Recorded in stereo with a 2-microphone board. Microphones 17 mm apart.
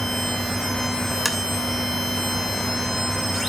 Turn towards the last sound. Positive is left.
turn(degrees=-5)  # may be behind; listen again after turning